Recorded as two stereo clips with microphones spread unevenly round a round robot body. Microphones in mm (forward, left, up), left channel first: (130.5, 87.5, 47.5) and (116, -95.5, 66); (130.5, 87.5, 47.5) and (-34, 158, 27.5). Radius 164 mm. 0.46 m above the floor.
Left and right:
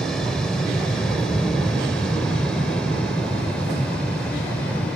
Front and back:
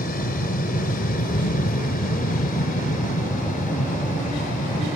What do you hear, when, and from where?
0.0 s an aircraft: straight ahead; by 5.0 s 5° left